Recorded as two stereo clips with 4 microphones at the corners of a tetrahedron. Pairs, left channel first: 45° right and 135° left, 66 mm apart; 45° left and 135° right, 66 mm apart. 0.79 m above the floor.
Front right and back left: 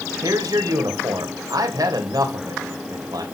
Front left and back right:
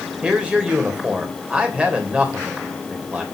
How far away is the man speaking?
About 3 m.